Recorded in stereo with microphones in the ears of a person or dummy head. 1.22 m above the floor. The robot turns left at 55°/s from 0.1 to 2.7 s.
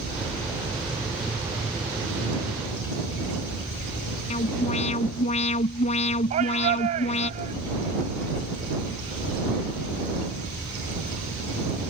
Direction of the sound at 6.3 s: 35° right (ahead or behind).